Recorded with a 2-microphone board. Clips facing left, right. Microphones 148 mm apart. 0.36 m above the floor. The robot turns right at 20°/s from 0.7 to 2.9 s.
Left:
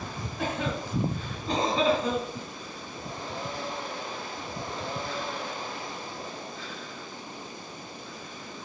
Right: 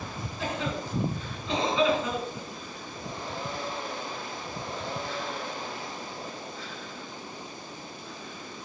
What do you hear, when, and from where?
0.4 s a cough: 60° left (ahead or behind), 3.5 m; by 2.5 s 30° left (ahead or behind), 3.5 m